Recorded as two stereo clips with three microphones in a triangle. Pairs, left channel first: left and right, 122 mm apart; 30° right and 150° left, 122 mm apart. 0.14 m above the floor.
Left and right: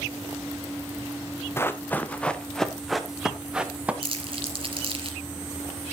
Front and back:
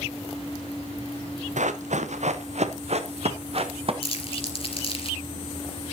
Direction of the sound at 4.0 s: 55° right.